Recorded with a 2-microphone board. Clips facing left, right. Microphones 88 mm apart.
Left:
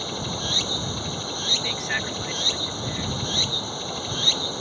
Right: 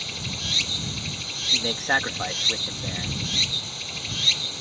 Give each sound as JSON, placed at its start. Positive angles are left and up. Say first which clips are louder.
{"t": 0.0, "sound": "running water", "louder": "left 6 dB", "side_deg": 35}
{"t": 1.5, "sound": "a man speaking", "louder": "right 7 dB", "side_deg": -50}